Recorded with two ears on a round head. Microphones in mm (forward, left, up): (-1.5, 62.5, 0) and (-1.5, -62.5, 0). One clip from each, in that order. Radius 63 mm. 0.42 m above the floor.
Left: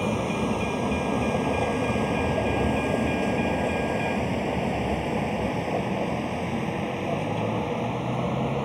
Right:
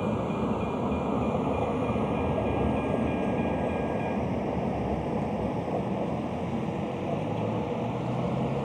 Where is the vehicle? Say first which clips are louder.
Left 3 dB; 85° left; by 8.7 s 35° left (ahead or behind).